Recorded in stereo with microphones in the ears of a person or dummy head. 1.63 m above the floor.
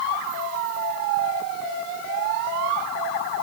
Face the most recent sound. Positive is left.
No sound to turn to.